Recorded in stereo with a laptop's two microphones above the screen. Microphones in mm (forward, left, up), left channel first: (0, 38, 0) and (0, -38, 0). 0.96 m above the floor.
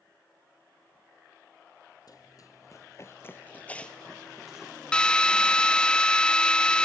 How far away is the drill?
About 0.5 m.